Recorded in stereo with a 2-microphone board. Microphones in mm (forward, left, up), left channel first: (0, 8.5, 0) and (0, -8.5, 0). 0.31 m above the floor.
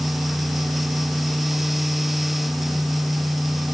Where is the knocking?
I don't hear knocking.